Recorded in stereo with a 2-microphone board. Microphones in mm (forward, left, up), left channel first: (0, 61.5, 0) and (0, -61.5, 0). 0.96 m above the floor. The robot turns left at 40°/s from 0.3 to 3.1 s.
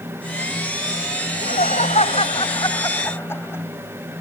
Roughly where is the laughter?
Left.